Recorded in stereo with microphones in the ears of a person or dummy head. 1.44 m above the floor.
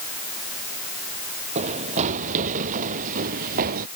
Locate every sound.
1.6 s running footsteps: 40° right (ahead or behind); by 3.9 s 50° right (ahead or behind)